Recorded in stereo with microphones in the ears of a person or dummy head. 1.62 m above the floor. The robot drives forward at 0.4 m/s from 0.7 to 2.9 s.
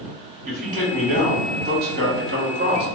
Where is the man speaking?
40° right (ahead or behind), 2.0 m; by 2.9 s 65° right (ahead or behind), 1.5 m.